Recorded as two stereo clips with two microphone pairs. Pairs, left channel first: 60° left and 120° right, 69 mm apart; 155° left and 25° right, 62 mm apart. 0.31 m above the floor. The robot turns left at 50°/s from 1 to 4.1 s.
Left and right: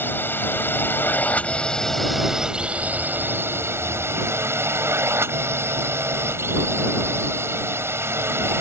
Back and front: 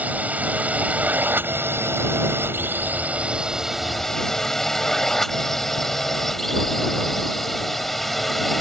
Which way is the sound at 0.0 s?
25° left.